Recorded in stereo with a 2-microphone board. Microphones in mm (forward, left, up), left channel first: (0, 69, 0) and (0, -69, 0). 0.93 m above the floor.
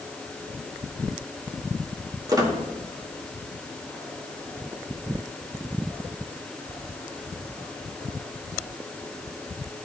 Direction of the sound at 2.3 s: 25° right (ahead or behind).